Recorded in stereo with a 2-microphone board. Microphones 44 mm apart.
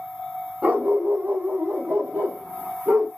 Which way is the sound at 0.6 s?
30° right (ahead or behind).